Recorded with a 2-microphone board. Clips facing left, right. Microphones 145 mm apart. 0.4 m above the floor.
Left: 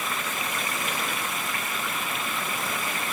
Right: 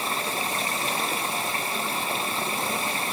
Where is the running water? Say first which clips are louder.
Right 3 dB; 30° right (ahead or behind).